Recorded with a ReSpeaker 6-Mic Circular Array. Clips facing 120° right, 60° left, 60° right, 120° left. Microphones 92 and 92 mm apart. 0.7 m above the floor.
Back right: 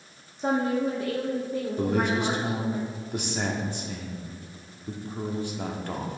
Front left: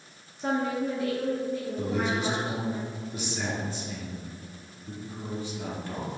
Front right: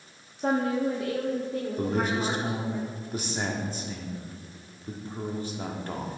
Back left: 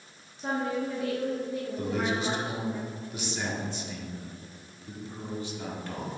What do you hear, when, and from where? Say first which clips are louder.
0.4 s a woman speaking: back right 3 dB, front right 4 dB; 55° right, 0.8 m; by 2.8 s 95° right, 2.5 m
1.8 s a man speaking: back right 4 dB, front right 2 dB; 105° right, 1.4 m